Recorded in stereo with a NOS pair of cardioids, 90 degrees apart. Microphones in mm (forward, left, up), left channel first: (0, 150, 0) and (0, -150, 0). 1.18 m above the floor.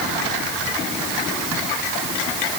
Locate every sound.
Only background noise.